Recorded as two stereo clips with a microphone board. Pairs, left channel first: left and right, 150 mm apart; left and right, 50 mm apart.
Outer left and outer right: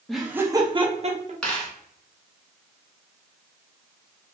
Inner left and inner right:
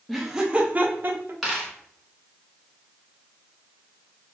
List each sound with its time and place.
0.1 s laughter: 5° left (ahead or behind), 0.5 m; by 1.3 s 50° right (ahead or behind), 0.8 m
1.4 s a dropped coin: 5° left (ahead or behind), 1.4 m